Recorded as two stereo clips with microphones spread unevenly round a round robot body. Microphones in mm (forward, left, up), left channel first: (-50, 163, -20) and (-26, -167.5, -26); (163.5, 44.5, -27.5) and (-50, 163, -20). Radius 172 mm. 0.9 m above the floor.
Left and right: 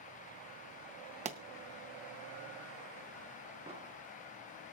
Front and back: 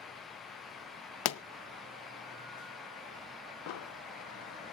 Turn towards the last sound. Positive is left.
turn(degrees=-10)